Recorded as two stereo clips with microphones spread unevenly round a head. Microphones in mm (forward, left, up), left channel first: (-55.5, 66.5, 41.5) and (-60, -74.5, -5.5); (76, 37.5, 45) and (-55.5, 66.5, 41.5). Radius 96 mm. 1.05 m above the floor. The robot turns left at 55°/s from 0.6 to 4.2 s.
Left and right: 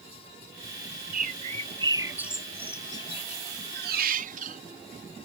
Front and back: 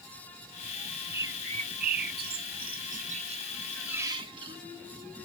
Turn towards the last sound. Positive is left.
turn(degrees=-125)